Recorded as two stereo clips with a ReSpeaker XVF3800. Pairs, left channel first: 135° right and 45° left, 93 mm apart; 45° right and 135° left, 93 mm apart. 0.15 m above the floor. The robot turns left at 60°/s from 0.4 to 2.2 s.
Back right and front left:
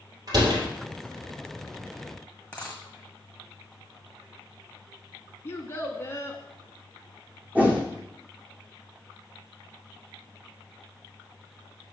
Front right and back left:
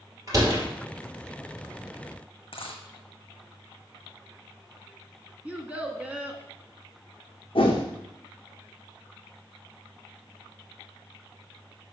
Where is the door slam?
85° left, 2.5 m; by 0.6 s 75° left, 2.5 m.